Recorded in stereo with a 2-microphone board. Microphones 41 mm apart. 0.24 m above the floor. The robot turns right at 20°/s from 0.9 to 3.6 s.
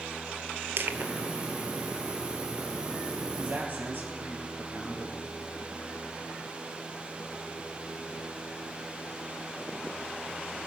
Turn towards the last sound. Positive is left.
turn(degrees=-50)  # may be behind; listen again after turning